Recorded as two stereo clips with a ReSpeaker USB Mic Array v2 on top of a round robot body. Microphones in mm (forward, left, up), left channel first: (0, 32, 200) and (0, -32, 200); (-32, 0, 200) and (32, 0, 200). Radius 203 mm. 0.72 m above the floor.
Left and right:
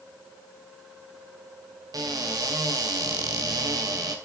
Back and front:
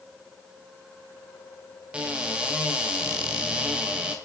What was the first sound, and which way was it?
A cupboard door, 70° right.